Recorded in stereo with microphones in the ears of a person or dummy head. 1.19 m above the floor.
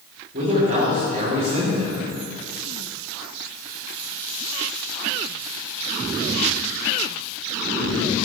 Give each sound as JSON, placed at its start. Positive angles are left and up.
{"t": 0.3, "sound": "a man speaking", "side_deg": -50, "distance_m": 3.5}